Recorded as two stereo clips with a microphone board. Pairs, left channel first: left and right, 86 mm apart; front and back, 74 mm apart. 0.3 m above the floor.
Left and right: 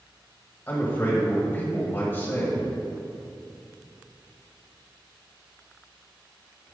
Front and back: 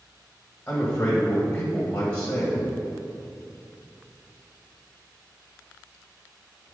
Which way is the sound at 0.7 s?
50° left.